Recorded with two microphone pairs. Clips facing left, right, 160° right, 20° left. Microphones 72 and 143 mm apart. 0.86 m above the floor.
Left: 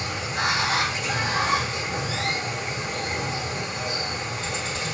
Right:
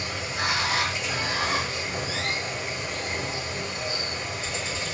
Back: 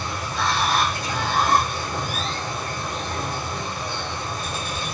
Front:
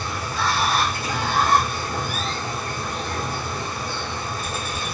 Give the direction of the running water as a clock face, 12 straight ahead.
8 o'clock.